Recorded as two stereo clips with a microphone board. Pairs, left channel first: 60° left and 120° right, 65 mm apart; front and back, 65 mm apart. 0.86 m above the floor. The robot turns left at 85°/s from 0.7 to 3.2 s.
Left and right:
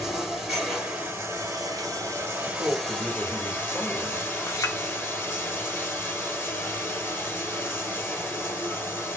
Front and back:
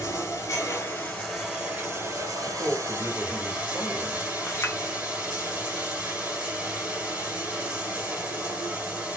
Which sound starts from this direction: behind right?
A man speaking, at 2.4 s.